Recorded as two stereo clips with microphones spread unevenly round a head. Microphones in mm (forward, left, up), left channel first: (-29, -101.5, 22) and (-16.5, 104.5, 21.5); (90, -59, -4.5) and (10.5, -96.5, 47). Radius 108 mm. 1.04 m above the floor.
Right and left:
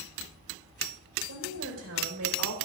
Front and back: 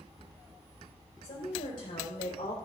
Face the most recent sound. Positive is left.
turn(degrees=70)